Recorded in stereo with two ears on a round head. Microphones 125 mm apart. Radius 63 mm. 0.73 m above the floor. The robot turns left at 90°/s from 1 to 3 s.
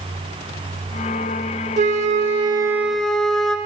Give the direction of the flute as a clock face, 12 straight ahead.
2 o'clock.